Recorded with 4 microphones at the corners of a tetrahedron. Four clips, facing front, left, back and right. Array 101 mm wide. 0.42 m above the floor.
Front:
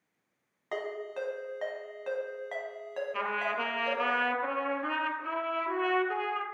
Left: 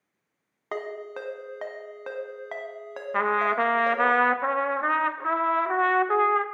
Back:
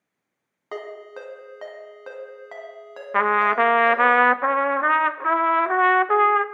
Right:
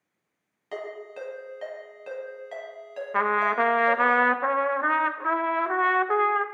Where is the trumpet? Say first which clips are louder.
Right 1 dB, back 15 dB; 175° right, 0.5 m.